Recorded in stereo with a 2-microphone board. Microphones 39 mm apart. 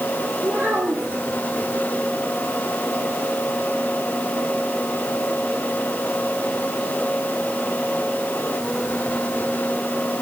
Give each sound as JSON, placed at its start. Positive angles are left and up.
{"t": 0.4, "sound": "a child speaking", "side_deg": -60, "distance_m": 6.5}